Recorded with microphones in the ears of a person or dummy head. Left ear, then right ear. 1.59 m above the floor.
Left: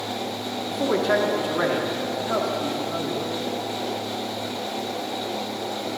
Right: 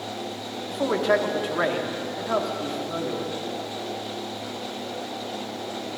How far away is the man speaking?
About 1.8 m.